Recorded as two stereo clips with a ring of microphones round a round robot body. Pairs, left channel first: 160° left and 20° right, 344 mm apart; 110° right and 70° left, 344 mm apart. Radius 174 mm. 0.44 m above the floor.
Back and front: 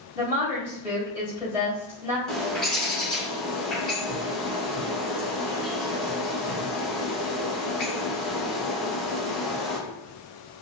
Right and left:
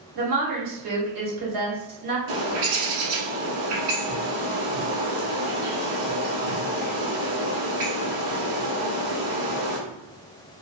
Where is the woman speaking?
60° left, 1.9 m.